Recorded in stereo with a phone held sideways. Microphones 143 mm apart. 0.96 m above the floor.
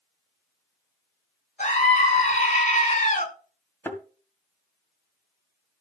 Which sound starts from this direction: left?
A scream, at 1.6 s.